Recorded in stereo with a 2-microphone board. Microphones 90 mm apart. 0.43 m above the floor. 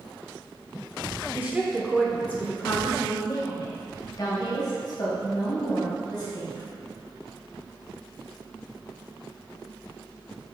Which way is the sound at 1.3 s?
25° right (ahead or behind).